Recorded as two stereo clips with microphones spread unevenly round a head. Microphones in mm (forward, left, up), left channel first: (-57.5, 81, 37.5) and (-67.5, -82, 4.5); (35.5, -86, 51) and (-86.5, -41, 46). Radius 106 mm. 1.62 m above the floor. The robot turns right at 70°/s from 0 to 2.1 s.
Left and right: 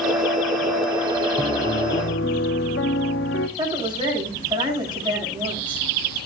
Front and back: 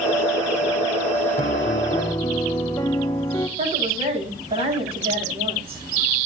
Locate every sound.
1.4 s a piano: 5° left, 0.8 m; by 3.5 s 55° left, 0.8 m
3.6 s a woman speaking: 155° right, 9.5 m